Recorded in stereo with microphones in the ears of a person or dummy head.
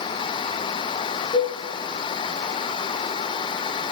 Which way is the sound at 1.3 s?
30° left (ahead or behind).